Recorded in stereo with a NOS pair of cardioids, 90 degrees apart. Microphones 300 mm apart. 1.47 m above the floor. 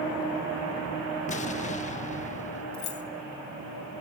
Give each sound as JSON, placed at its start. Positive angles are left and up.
{"t": 1.3, "sound": "an explosion", "azimuth_deg": 25, "distance_m": 1.6}
{"t": 2.7, "sound": "keys jangling", "azimuth_deg": 65, "distance_m": 1.6}